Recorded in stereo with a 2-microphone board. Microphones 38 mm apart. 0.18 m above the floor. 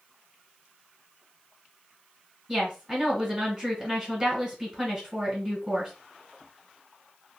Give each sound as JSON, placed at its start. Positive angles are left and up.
{"t": 2.5, "sound": "a woman speaking", "side_deg": -5, "distance_m": 1.8}